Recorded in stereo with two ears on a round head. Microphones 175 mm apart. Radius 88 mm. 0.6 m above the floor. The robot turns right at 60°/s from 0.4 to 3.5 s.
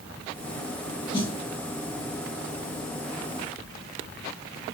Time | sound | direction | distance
1.1 | a snare drum | 25° left (ahead or behind) | 1.4 m